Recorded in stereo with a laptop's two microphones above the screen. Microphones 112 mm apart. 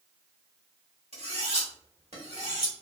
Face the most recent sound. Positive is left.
turn(degrees=-80)